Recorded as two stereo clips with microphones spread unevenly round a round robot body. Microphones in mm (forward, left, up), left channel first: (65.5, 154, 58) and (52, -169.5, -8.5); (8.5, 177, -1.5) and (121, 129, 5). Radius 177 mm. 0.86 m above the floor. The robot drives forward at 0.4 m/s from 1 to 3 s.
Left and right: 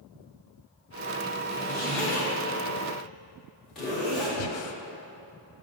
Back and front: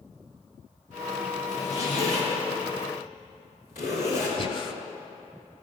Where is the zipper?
Straight behind, 2.5 m.